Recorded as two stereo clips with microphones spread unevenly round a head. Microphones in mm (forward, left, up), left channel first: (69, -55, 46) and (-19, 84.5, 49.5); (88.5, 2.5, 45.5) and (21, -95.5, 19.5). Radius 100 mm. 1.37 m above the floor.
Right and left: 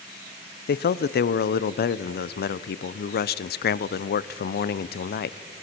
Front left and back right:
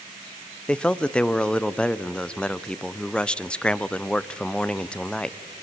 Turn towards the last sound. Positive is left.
turn(degrees=-30)